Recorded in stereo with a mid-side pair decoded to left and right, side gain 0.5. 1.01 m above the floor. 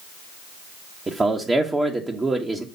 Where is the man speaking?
25° right, 1.1 m.